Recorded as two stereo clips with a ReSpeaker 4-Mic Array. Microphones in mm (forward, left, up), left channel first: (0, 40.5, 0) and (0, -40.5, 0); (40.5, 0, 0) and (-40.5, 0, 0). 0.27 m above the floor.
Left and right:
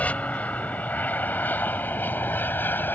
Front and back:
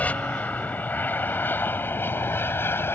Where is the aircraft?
45° left; by 3.0 s 40° left.